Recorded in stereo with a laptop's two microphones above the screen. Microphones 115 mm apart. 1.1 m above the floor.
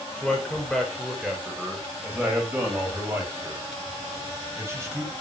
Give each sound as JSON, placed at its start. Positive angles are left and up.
{"t": 0.2, "sound": "a man speaking", "side_deg": 5, "distance_m": 5.0}